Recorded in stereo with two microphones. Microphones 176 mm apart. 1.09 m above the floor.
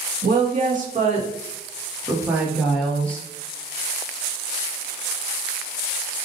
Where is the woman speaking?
55° right (ahead or behind), 2.0 m; by 3.3 s 10° left (ahead or behind), 1.8 m.